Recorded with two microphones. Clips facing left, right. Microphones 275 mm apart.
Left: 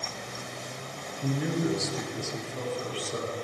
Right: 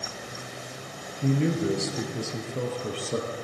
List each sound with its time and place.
1.2 s a man speaking: 25° right (ahead or behind), 1.9 m; by 3.3 s 55° right (ahead or behind), 2.5 m